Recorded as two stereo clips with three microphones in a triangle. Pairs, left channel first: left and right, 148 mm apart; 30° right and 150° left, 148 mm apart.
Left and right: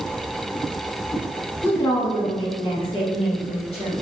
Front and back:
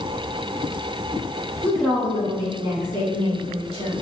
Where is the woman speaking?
35° left, 1.2 m; by 3.9 s 125° left, 2 m.